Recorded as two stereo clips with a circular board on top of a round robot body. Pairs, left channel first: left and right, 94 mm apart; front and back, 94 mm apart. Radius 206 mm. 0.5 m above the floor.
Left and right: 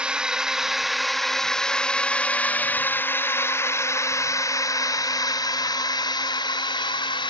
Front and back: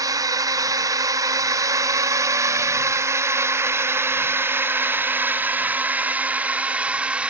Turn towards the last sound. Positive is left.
turn(degrees=105)